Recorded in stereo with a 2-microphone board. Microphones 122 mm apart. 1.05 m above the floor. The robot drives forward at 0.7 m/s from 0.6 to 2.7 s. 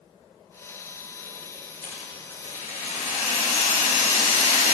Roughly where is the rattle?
Left.